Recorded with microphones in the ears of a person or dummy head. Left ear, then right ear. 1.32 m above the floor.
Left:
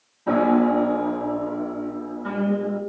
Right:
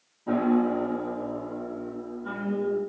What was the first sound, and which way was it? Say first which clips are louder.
A piano: left 6 dB; 75° left (ahead or behind).